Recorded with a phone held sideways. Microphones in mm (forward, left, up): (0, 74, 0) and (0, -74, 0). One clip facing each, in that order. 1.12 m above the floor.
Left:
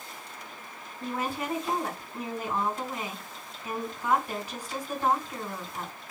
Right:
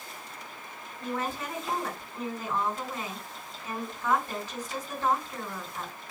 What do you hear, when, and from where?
1.0 s a woman speaking: 15° left (ahead or behind), 3 m